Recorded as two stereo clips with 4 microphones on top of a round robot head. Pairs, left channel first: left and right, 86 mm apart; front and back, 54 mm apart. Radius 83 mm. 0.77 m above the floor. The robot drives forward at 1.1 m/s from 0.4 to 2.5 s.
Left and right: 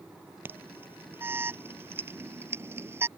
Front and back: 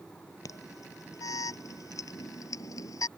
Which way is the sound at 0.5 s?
25° right.